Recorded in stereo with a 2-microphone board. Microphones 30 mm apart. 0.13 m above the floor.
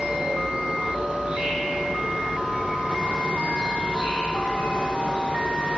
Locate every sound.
0.0 s an insect: 40° right (ahead or behind), 3.5 m